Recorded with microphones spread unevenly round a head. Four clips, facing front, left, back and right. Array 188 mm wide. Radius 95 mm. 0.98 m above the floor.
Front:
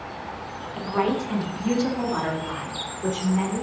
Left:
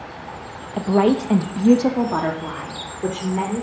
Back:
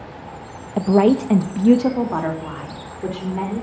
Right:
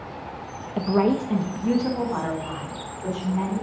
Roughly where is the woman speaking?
Behind.